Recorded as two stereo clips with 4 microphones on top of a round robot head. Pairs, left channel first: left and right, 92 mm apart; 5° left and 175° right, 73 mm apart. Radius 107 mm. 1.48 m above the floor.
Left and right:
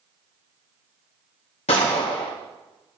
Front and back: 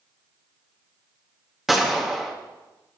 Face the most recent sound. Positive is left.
turn(degrees=100)